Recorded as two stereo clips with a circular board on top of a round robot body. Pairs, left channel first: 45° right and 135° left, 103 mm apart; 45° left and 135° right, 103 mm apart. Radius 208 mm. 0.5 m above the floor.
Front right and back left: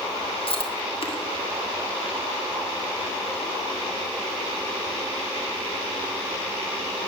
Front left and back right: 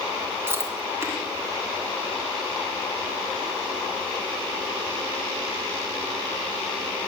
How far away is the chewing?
About 3 m.